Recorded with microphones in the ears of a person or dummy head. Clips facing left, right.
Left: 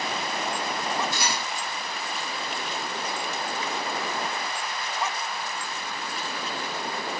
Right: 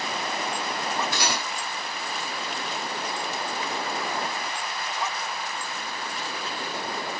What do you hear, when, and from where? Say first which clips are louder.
1.1 s cutlery clinking: right 1 dB; 55° right (ahead or behind), 3.5 m